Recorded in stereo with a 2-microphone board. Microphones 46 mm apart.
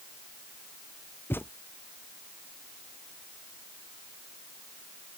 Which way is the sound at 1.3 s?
55° left (ahead or behind).